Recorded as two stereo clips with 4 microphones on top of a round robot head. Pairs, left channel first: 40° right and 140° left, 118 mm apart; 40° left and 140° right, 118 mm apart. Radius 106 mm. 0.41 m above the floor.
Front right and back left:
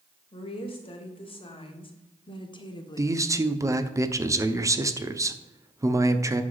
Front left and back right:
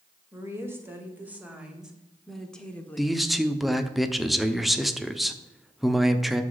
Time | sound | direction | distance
0.3 | a woman speaking | 75° right | 2.5 m
3.0 | a man speaking | 130° left | 0.9 m